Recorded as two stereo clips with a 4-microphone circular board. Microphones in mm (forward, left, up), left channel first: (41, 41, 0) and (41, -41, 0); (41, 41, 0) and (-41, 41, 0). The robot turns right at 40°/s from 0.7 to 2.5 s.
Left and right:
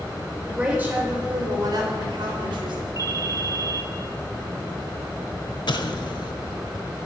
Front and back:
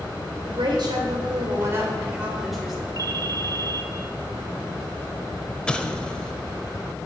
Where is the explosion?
80° left, 0.9 m.